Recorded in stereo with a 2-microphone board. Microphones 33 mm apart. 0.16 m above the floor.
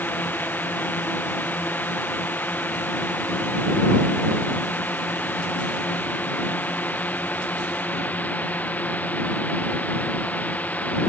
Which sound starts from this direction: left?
A drone, at 0.0 s.